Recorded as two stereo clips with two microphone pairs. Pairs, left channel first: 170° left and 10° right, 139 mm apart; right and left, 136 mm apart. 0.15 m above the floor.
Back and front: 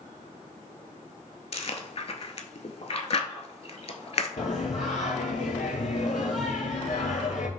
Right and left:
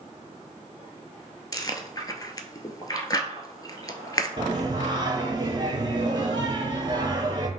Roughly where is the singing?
Behind left.